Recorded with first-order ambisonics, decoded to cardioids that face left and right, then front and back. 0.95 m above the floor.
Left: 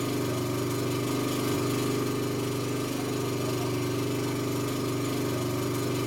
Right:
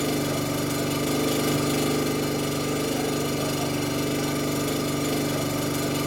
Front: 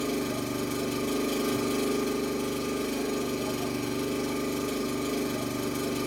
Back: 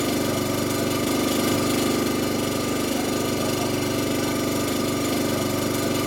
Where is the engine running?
160° right, 0.8 m.